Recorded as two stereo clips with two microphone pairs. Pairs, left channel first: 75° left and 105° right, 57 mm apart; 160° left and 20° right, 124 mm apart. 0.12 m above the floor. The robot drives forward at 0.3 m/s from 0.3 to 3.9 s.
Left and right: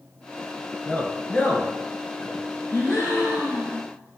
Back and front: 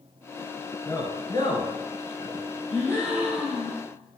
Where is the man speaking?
120° left, 1.4 m; by 2.4 s 140° left, 1.6 m.